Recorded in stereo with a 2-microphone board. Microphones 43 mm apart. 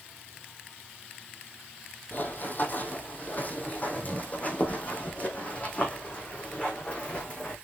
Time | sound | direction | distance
2.1 | running footsteps | 50° left (ahead or behind) | 2.5 m